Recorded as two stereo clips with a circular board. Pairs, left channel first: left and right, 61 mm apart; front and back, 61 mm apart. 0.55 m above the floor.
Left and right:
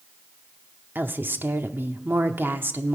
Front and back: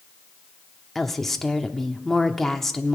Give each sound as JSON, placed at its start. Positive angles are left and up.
{"t": 0.9, "sound": "a woman speaking", "azimuth_deg": -80, "distance_m": 0.9}